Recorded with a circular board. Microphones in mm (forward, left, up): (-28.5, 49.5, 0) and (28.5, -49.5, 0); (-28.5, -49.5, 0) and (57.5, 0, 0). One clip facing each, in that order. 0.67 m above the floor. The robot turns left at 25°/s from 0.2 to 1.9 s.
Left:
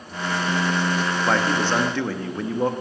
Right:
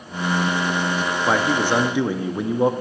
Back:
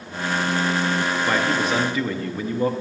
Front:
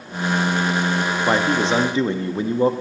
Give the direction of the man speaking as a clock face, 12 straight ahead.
11 o'clock.